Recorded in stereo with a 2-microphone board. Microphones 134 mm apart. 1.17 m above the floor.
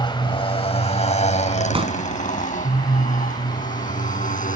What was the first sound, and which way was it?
A motorcycle, 35° left (ahead or behind).